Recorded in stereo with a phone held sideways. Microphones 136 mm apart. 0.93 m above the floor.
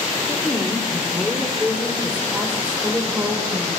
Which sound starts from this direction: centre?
A woman speaking, at 0.3 s.